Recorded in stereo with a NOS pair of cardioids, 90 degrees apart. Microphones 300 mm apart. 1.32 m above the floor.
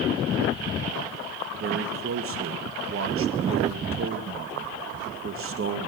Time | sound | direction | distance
1.6 | a man speaking | 45° right | 1.7 m